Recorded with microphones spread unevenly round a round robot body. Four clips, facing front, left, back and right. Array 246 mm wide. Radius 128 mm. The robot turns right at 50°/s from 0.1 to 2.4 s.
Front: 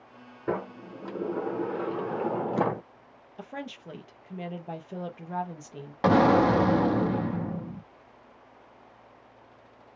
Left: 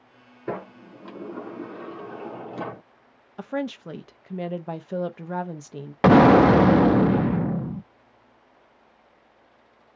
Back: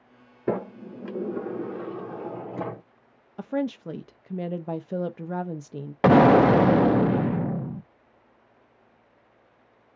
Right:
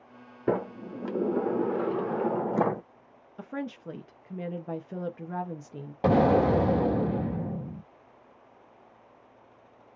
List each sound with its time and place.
0.5 s a sliding door: 145° right, 0.6 m; by 2.8 s 50° right, 0.6 m
3.4 s a woman speaking: 155° left, 0.6 m
6.0 s an explosion: 95° left, 0.5 m